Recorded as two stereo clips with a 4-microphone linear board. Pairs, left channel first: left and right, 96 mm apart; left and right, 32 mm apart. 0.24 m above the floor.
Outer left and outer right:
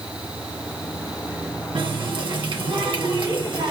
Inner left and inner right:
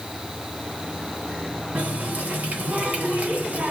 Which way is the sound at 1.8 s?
55° right (ahead or behind).